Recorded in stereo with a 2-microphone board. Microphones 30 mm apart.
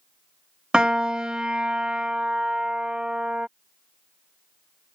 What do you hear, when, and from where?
0.7 s a piano: 30° right (ahead or behind)